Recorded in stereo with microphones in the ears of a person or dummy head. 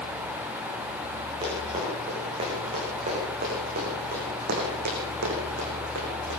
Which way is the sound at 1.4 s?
25° right (ahead or behind).